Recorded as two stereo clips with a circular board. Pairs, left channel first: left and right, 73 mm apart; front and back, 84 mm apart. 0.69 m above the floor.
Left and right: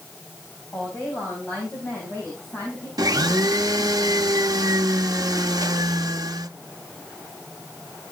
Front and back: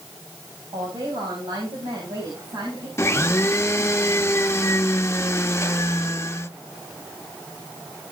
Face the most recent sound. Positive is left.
turn(degrees=-60)